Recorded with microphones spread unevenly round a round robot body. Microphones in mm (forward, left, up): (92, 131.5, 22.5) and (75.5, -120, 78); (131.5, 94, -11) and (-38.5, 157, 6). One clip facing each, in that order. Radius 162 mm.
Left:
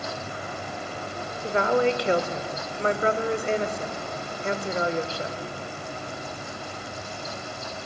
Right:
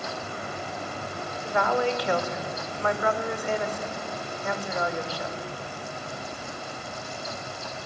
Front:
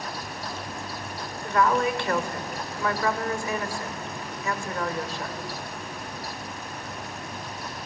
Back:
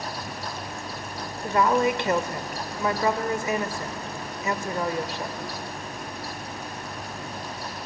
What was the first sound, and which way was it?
A woman speaking, 95° left.